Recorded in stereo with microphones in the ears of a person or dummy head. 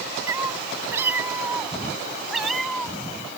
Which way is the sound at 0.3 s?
15° right (ahead or behind).